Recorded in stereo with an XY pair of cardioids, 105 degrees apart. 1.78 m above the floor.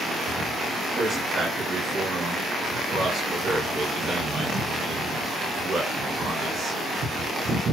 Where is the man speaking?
55° right, 1.4 m.